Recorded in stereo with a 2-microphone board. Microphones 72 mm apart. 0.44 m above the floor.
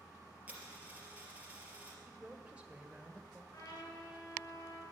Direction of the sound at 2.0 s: 15° right (ahead or behind).